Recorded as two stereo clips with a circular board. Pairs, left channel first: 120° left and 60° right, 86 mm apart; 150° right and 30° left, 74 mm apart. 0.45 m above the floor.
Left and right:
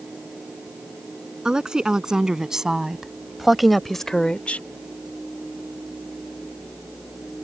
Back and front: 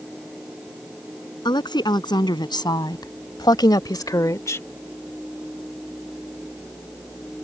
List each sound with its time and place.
1.4 s a woman speaking: 140° right; by 4.7 s straight behind